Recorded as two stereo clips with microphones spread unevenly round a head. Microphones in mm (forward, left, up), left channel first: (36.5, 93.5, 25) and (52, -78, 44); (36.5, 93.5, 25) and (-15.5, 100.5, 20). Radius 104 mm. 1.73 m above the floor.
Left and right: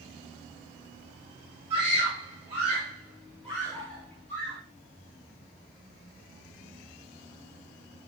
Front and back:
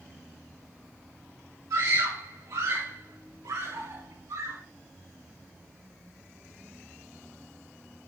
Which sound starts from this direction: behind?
A scream, at 1.7 s.